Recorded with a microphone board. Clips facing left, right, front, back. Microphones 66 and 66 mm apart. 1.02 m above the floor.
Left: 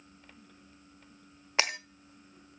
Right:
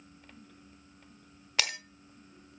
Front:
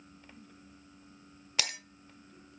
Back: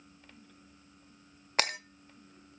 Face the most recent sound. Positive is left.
turn(degrees=150)